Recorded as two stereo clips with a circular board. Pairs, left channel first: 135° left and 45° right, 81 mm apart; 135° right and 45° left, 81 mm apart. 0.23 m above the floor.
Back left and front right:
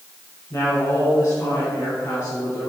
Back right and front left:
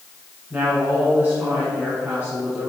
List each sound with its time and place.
0.5 s a woman speaking: 105° left, 1.9 m